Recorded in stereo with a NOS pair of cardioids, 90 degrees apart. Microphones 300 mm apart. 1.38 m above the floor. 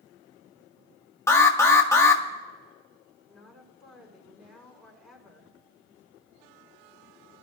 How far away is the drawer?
I don't hear a drawer.